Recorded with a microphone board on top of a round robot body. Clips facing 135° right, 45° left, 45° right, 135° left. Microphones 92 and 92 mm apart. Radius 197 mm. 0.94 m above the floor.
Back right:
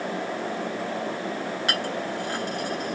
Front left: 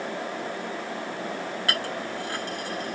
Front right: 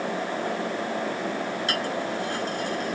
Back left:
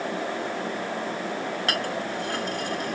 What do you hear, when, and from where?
1.7 s a clink: 155° left, 3.5 m